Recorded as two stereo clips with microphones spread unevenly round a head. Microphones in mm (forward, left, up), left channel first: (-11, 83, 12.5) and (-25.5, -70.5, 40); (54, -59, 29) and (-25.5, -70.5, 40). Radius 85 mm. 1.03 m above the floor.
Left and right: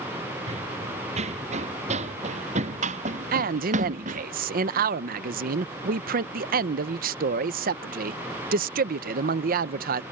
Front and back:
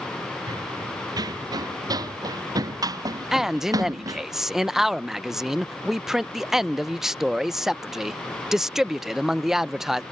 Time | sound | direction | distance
0.5 | running footsteps | 140° right | ?
3.3 | a man speaking | 80° right | ?